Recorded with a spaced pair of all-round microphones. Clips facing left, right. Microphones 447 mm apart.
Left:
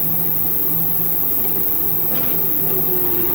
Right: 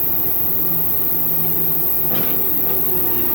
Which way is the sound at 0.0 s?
10° right (ahead or behind).